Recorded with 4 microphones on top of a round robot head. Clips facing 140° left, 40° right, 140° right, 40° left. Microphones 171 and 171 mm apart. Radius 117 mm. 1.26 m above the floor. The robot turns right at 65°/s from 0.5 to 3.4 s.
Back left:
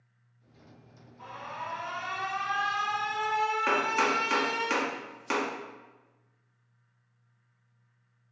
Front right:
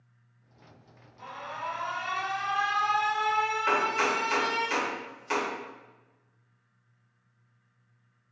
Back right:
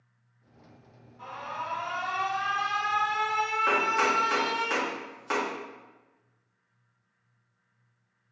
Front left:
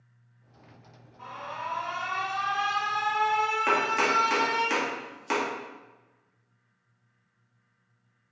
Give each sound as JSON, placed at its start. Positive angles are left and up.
{"t": 1.2, "sound": "an alarm", "azimuth_deg": -80, "distance_m": 2.0}
{"t": 3.7, "sound": "chopping", "azimuth_deg": 105, "distance_m": 1.4}